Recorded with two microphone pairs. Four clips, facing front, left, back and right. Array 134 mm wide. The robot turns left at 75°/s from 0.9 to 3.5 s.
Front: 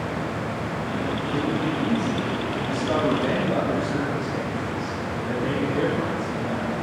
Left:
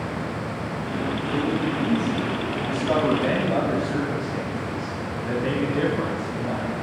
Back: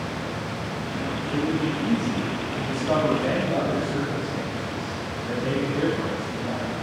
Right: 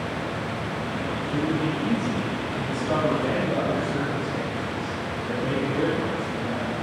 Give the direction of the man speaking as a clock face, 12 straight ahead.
3 o'clock.